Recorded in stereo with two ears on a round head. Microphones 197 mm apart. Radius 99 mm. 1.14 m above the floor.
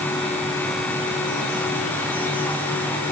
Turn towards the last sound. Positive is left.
No sound to turn to.